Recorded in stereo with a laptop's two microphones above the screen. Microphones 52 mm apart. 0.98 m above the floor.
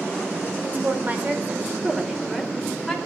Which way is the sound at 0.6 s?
40° right (ahead or behind).